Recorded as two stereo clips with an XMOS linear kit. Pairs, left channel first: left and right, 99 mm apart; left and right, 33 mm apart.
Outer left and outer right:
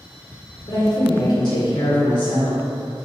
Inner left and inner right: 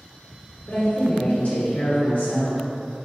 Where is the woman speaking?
50° left (ahead or behind), 1.8 m.